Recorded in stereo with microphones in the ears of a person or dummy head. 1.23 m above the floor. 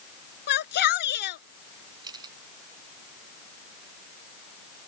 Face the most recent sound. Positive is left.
turn(degrees=-25)  # may be behind; listen again after turning